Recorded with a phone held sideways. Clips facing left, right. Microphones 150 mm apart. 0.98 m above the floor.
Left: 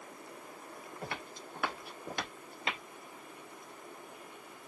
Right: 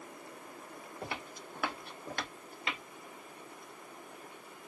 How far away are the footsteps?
About 1.1 m.